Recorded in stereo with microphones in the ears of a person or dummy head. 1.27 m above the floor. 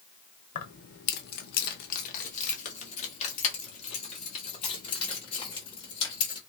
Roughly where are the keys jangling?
Left.